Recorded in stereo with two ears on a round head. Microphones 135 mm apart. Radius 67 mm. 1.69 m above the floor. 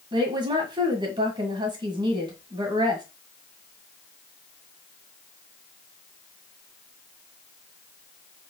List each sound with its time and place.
0.1 s a woman speaking: 35° right (ahead or behind), 1.8 m